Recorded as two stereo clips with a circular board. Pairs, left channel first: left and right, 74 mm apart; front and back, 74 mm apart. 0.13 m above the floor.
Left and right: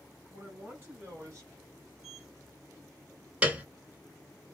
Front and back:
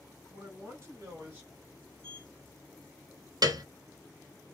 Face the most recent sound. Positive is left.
turn(degrees=-160)